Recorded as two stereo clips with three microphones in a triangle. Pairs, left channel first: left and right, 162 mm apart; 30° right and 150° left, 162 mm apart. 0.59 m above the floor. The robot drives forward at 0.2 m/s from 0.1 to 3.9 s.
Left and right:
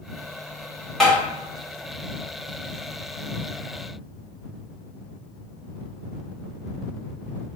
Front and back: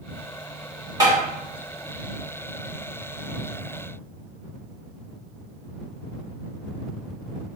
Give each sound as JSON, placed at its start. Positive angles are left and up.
{"t": 1.0, "sound": "tapping", "azimuth_deg": 175, "distance_m": 1.0}